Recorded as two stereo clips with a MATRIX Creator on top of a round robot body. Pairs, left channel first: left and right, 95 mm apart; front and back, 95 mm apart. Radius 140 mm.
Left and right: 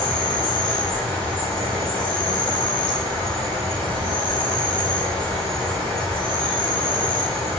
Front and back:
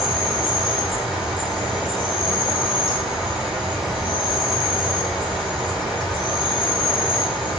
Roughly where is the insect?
Right.